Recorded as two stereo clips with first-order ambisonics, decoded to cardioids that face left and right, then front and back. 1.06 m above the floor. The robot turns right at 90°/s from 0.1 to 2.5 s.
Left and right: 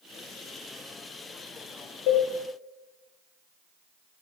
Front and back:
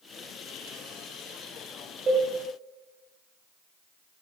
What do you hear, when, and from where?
2.1 s a cowbell: 110° left, 3.5 m; by 2.3 s 130° left, 3.5 m